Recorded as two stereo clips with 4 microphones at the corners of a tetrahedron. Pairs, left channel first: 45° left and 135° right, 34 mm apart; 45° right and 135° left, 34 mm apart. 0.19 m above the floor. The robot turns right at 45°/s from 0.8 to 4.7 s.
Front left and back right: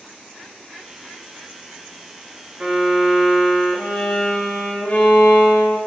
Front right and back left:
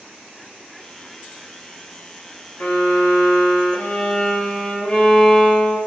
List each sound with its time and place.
2.6 s a violin: 80° right, 1.3 m; by 5.8 s 15° left, 1.3 m